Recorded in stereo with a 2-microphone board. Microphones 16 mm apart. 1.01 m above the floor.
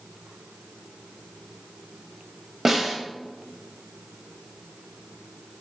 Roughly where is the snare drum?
Centre.